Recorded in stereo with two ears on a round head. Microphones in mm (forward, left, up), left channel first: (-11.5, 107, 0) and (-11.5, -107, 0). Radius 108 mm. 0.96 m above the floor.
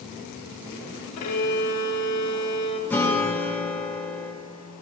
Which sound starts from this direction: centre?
A guitar, at 2.9 s.